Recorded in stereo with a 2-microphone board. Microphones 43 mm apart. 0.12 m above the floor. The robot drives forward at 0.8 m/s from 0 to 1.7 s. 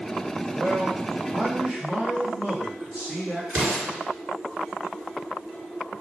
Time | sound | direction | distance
0.5 | a man speaking | 30° right (ahead or behind) | 1.2 m
3.5 | an explosion | 35° right (ahead or behind) | 2 m